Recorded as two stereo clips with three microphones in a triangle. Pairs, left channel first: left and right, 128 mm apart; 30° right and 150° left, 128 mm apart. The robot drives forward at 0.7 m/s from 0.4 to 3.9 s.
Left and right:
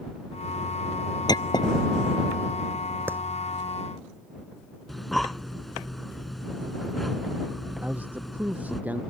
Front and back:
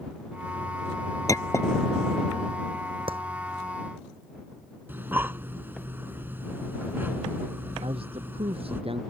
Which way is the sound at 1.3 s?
30° left.